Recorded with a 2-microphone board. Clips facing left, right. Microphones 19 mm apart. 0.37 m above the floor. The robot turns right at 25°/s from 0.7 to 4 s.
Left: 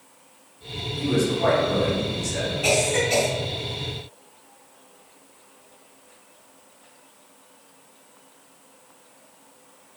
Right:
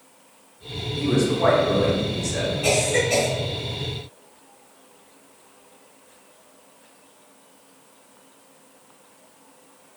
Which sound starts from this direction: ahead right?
A man speaking, at 1.0 s.